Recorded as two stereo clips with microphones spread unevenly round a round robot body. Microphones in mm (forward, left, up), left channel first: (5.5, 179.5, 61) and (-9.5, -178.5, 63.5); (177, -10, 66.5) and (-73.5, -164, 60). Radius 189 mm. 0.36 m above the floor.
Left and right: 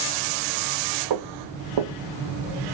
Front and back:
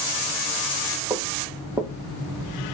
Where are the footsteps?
70° right, 0.6 m.